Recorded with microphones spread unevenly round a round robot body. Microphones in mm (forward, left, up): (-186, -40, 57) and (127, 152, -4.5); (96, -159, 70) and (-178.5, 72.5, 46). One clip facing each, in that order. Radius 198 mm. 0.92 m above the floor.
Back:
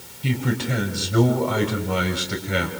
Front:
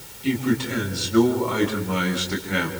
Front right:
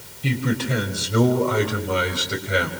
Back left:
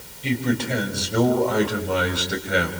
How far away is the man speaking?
About 6.5 m.